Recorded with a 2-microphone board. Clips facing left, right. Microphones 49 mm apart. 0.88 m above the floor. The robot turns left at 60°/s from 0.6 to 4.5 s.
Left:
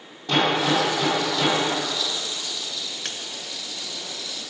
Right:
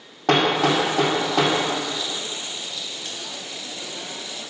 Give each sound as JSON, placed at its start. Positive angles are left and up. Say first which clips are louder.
{"t": 0.3, "sound": "hammering", "louder": "right 2 dB", "side_deg": -65, "distance_m": 2.5}
{"t": 3.0, "sound": "a splash", "louder": "left 1 dB", "side_deg": 65, "distance_m": 0.6}